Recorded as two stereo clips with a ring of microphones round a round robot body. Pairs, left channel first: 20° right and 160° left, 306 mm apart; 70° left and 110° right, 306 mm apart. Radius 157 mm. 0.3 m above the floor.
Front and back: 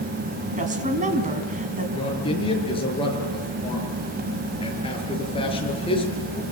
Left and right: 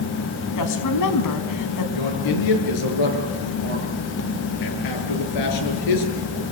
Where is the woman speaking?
90° left, 3.5 m.